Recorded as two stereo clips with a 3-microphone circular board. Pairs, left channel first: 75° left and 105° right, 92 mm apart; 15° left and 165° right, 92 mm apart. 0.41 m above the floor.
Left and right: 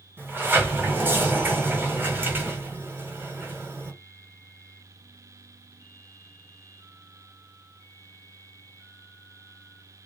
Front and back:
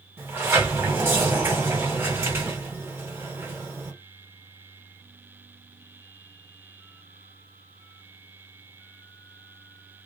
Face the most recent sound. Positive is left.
turn(degrees=-140)